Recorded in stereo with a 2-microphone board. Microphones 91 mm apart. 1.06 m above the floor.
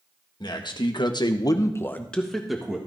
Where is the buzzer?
No buzzer in this recording.